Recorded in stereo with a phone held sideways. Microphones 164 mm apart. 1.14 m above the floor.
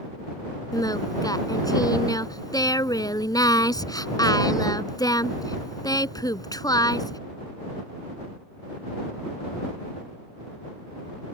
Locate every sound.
0.7 s singing: 25° left (ahead or behind)